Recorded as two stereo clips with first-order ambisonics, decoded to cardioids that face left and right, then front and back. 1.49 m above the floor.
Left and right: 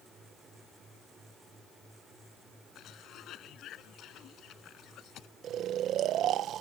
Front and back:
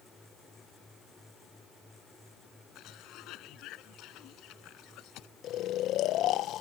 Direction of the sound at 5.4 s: 40° right.